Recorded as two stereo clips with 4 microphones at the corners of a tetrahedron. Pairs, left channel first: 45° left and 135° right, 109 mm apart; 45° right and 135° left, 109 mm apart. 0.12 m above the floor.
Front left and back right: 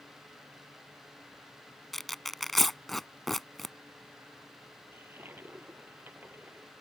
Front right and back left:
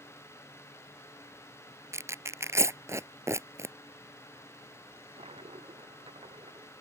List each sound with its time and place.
1.9 s tearing paper: 130° left
4.9 s a toilet flushing: 155° left